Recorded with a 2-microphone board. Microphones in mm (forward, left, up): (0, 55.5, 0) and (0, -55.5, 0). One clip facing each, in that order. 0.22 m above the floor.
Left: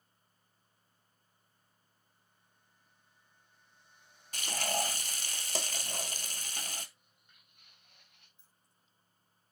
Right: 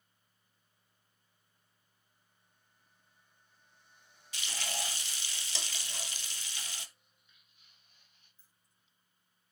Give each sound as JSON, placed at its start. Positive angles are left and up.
{"t": 4.3, "sound": "frying", "side_deg": 50, "distance_m": 0.8}
{"t": 7.0, "sound": "footsteps", "side_deg": 50, "distance_m": 2.5}
{"t": 8.4, "sound": "keys jangling", "side_deg": 15, "distance_m": 5.5}